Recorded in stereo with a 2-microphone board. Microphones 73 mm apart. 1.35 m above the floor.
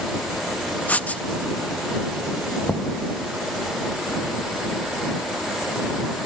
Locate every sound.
0.9 s writing: 25° left (ahead or behind)
2.7 s knocking: 25° left (ahead or behind)